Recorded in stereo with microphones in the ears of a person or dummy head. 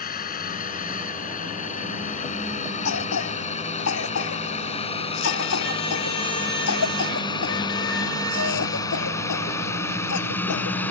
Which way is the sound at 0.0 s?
45° left (ahead or behind).